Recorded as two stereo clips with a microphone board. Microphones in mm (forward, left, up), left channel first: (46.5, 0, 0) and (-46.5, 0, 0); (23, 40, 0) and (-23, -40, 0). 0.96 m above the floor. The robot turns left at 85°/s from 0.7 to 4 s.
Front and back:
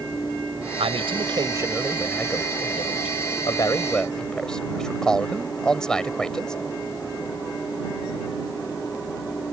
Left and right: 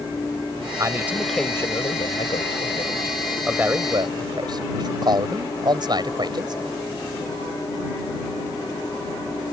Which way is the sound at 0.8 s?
170° right.